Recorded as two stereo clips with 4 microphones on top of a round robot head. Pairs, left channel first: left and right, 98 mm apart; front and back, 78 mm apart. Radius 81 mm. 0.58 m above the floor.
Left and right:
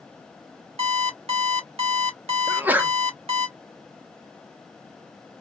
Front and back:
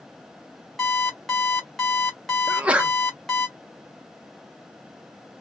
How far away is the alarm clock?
About 1.2 m.